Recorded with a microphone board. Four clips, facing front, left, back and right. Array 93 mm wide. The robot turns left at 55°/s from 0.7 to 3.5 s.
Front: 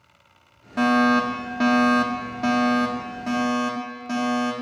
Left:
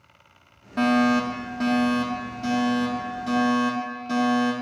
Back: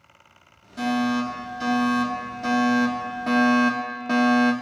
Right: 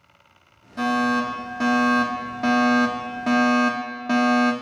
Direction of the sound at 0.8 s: 35° left.